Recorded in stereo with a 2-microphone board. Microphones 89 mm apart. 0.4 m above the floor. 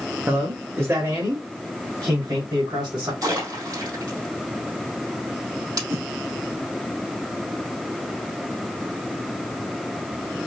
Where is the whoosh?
25° right (ahead or behind), 0.8 m.